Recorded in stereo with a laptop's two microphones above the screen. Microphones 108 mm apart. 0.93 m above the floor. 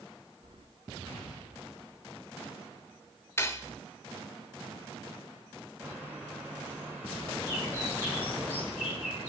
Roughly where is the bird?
Centre.